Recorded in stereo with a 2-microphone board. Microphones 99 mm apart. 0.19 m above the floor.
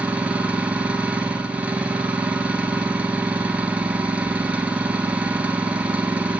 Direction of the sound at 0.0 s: 15° right (ahead or behind).